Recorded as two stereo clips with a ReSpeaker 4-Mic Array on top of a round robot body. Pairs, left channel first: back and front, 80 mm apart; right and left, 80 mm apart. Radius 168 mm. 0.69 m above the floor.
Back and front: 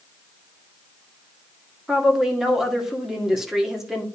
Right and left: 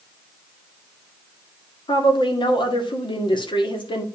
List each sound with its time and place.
1.9 s a woman speaking: 85° right, 2 m